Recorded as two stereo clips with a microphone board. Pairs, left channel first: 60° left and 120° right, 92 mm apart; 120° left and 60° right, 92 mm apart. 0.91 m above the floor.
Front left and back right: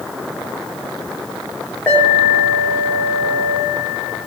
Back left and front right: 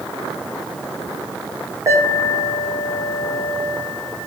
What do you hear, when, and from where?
1.9 s an alarm: 5° right, 4.5 m